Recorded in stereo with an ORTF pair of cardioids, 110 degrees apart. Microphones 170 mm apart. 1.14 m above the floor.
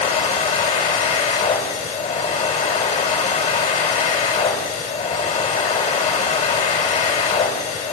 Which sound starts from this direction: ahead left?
A machine running, at 0.0 s.